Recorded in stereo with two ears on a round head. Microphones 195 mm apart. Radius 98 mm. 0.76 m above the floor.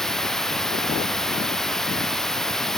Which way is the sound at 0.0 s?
Centre (ahead or behind).